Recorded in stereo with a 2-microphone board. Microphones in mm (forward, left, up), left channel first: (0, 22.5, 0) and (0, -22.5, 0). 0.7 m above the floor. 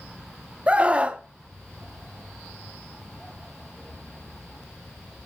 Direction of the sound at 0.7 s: 25° right (ahead or behind).